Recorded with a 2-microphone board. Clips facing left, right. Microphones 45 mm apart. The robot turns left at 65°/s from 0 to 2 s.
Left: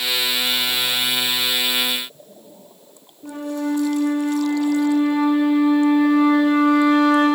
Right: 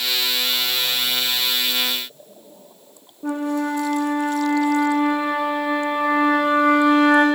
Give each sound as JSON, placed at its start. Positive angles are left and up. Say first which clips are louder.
{"t": 3.2, "sound": "a flute", "louder": "right 2 dB", "side_deg": -65, "distance_m": 2.5}